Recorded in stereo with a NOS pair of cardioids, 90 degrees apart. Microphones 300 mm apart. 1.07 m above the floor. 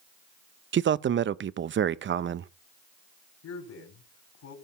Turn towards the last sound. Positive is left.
turn(degrees=60)